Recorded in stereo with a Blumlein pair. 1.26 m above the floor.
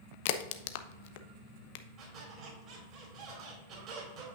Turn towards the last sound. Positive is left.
turn(degrees=-35)